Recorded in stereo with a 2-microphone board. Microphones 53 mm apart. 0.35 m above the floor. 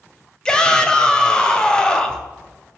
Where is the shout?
15° left (ahead or behind), 2 m.